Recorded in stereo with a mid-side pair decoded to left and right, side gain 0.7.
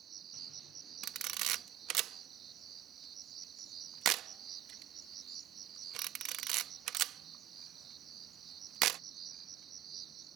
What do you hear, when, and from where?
0.0 s an insect: 40° right
1.0 s a camera shutter: 55° right